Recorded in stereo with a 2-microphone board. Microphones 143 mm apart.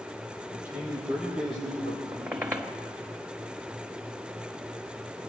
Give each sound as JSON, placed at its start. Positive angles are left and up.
{"t": 0.5, "sound": "a man speaking", "side_deg": -15, "distance_m": 6.5}
{"t": 2.1, "sound": "a squeak", "side_deg": -15, "distance_m": 1.1}